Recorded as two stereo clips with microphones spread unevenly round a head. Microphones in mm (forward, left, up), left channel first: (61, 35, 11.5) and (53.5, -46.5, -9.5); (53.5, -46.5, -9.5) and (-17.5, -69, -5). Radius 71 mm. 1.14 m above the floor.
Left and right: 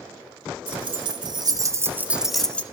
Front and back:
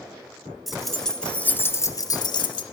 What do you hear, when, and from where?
0.7 s keys jangling: 75° right, 1.6 m; by 2.6 s 15° left, 1.0 m